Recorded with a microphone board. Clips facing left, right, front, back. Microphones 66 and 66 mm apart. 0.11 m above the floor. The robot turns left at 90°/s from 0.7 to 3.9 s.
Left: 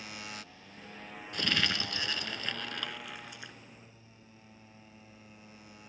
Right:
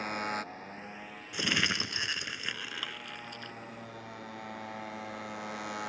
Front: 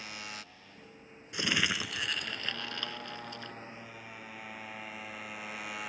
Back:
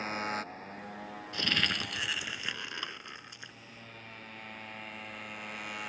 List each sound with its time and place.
0.0 s a motorcycle: 130° right; by 5.9 s 90° right
1.3 s crumpling: 30° right; by 3.5 s 130° left